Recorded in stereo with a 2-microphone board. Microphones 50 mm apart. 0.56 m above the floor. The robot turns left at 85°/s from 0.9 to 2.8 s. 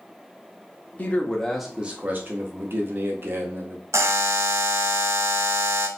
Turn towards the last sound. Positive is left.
turn(degrees=-70)  # may be behind; listen again after turning